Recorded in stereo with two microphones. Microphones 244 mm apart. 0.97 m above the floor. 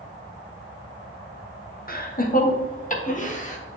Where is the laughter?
40° left (ahead or behind), 1.0 m; by 3.6 s 30° left (ahead or behind), 1.7 m.